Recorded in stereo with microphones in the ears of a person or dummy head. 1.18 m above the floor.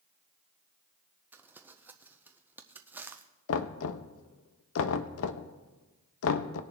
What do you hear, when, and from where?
1.3 s crumpling: 10° right (ahead or behind), 0.5 m
3.5 s knocking: 75° left (ahead or behind), 0.7 m